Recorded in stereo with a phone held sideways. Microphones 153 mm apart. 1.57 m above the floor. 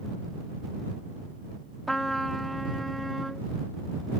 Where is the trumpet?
Centre (ahead or behind).